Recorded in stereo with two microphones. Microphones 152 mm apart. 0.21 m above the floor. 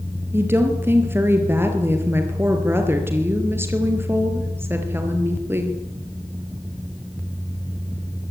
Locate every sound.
0.3 s a woman speaking: 15° right (ahead or behind), 4.5 m